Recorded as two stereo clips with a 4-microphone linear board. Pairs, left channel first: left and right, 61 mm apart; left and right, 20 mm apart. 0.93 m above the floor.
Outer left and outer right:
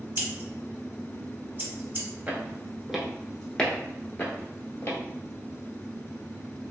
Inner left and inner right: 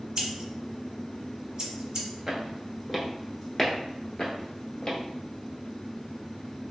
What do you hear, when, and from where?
0.2 s scissors: 30° right (ahead or behind), 1.0 m
2.3 s footsteps: 25° right (ahead or behind), 0.9 m; by 5.0 s 45° left (ahead or behind), 1.2 m